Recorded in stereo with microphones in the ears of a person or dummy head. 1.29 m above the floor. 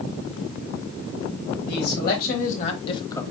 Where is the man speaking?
65° left (ahead or behind), 2.0 m; by 3.2 s 15° left (ahead or behind), 1.0 m.